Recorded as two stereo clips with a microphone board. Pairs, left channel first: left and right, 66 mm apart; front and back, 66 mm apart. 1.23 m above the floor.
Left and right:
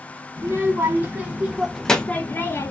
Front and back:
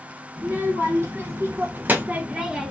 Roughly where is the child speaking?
Behind right.